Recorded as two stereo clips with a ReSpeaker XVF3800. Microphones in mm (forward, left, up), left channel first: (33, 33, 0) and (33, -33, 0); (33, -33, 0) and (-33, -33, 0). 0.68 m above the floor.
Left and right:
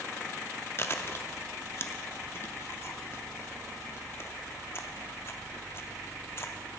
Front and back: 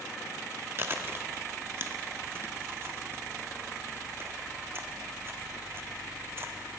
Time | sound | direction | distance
0.8 | chewing | 135° left | 0.7 m